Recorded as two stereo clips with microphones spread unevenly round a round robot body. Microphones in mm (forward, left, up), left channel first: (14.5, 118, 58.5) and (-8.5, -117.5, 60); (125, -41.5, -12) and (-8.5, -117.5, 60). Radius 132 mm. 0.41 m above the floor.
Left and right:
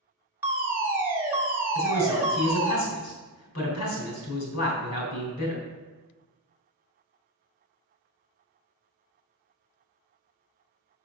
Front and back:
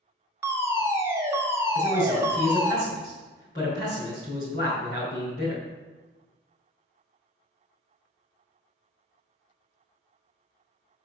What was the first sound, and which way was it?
A fire alarm, 30° right.